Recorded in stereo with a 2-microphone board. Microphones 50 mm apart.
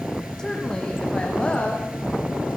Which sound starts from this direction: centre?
A woman speaking, at 0.4 s.